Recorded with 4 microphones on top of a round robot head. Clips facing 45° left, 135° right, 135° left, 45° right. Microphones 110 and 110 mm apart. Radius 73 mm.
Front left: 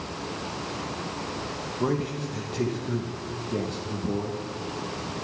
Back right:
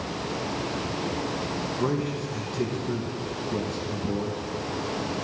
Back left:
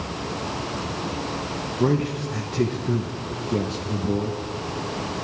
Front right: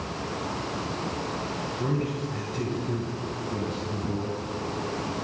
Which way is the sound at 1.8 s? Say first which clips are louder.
Front left 1 dB, back left 8 dB; 130° left.